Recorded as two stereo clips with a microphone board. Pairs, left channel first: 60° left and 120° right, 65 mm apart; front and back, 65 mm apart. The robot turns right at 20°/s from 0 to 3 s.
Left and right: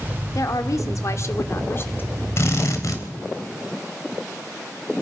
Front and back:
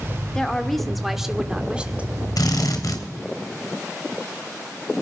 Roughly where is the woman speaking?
Left.